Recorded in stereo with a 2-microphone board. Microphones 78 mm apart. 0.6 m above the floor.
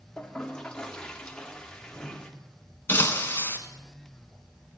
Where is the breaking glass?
30° left (ahead or behind), 1.2 m.